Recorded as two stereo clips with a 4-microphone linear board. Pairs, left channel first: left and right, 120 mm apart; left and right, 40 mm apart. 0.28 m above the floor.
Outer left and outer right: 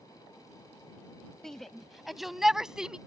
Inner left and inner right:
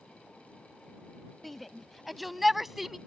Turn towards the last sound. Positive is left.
turn(degrees=-5)  # may be behind; listen again after turning